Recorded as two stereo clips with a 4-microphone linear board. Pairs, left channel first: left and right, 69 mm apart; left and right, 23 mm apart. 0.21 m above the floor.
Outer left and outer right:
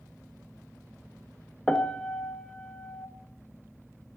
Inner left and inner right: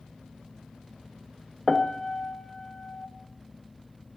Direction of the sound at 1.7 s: 15° left (ahead or behind).